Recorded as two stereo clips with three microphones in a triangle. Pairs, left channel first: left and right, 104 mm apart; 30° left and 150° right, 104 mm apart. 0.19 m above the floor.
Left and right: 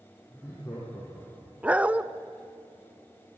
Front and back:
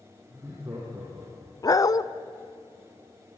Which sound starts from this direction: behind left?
Laughter, at 0.3 s.